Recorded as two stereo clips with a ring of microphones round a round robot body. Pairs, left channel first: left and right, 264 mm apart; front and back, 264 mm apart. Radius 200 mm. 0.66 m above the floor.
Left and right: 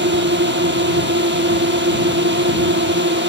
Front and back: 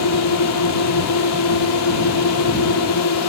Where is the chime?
I don't hear a chime.